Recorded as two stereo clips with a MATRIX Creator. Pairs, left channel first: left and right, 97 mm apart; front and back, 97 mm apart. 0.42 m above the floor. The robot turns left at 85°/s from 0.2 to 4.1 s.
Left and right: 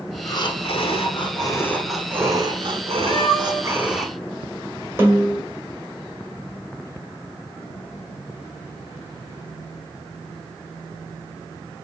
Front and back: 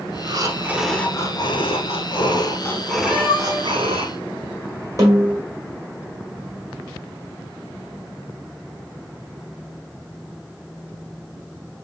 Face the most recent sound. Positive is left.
turn(degrees=-140)